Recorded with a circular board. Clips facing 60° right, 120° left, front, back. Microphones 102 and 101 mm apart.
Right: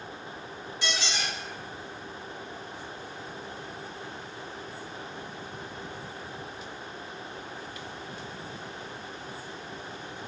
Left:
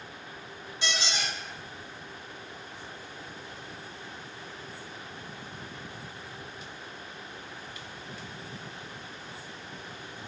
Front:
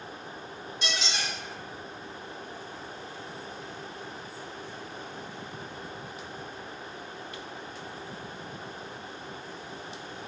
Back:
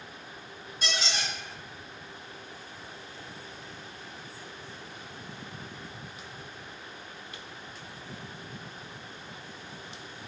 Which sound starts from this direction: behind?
A squeak, at 0.8 s.